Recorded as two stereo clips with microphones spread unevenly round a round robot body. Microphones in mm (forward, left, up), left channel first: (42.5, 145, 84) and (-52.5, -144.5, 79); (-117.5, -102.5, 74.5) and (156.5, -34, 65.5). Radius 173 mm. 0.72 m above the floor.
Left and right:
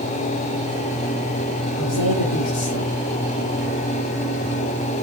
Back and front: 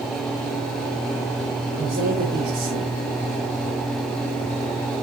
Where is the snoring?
No snoring in this recording.